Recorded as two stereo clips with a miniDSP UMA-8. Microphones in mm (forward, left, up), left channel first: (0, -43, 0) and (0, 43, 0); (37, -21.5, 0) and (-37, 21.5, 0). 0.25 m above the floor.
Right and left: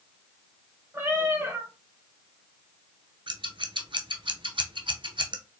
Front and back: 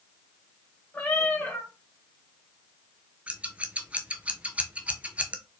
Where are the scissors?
75° left, 0.6 m.